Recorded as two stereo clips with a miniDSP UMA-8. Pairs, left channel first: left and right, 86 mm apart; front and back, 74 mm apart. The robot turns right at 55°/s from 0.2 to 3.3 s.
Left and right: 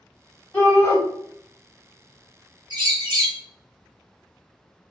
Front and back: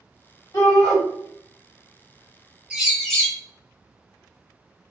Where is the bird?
105° right, 0.9 m; by 3.4 s 75° right, 0.9 m.